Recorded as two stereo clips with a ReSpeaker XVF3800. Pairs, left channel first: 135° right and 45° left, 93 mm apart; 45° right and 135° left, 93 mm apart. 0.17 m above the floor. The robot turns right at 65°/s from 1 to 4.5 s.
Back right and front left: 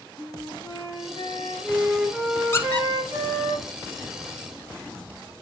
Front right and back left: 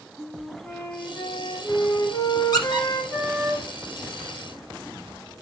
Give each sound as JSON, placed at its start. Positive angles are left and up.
{"t": 0.2, "sound": "a flute", "azimuth_deg": -125, "distance_m": 4.5}
{"t": 2.5, "sound": "a squeak", "azimuth_deg": -80, "distance_m": 1.8}